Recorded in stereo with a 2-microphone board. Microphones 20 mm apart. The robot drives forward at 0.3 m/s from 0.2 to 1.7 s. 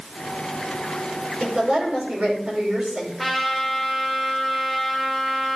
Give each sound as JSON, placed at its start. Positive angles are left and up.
{"t": 1.4, "sound": "a woman speaking", "side_deg": -65, "distance_m": 5.5}
{"t": 3.2, "sound": "a trumpet", "side_deg": -10, "distance_m": 1.9}